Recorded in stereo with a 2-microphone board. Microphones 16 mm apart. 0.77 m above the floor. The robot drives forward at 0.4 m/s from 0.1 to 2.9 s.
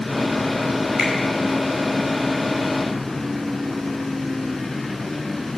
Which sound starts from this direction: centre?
A finger snap, at 1.0 s.